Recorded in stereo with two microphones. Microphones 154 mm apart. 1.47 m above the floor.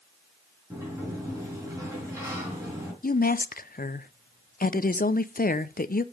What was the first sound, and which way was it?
A sliding door, 15° right (ahead or behind).